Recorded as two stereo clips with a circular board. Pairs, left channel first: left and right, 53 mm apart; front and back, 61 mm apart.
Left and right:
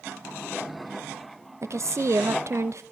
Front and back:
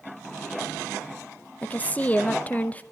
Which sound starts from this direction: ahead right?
A woman speaking, at 1.6 s.